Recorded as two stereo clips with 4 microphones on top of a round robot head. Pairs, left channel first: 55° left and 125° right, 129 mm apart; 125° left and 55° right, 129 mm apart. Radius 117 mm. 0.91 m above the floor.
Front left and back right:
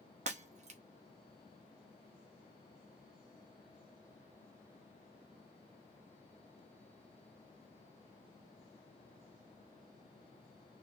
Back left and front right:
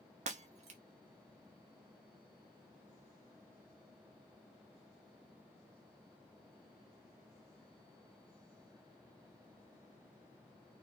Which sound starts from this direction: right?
Breaking glass, at 0.3 s.